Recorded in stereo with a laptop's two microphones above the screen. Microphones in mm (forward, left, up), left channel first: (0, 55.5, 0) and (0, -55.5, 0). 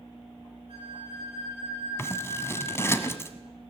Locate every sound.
0.7 s a flute: 55° right (ahead or behind), 10 m
2.0 s scissors: 25° left (ahead or behind), 1.2 m